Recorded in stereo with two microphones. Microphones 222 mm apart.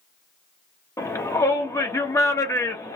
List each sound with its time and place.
1.0 s a shout: 15° left (ahead or behind), 0.8 m